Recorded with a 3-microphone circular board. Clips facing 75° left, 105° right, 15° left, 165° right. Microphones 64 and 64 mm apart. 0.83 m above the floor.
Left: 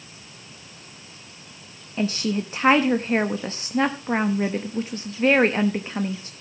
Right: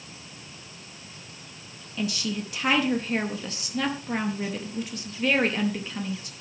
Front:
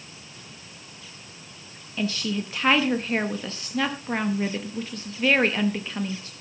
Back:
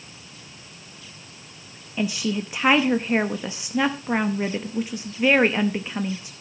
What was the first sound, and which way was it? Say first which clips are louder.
A woman speaking: left 5 dB, back 2 dB; 120° left.